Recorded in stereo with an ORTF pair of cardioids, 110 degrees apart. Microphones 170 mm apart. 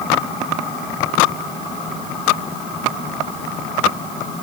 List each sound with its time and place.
Only background noise.